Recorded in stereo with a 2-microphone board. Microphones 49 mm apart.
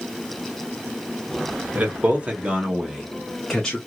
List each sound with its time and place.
1.7 s a man speaking: 40° right (ahead or behind), 1.4 m; by 3.8 s 15° left (ahead or behind), 1.1 m